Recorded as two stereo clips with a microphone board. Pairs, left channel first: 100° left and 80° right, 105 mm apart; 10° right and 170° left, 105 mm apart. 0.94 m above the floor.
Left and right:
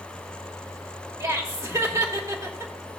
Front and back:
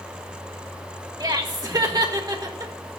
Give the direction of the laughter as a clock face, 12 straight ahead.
5 o'clock.